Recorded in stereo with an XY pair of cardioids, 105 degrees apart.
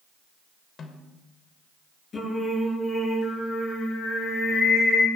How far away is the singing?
About 9.5 m.